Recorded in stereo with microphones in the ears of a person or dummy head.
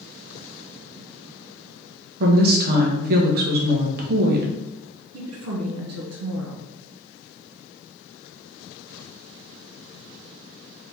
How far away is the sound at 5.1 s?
About 1.0 m.